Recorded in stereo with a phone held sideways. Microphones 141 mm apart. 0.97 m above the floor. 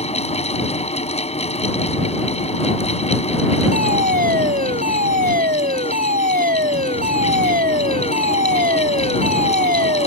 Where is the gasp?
I don't hear a gasp.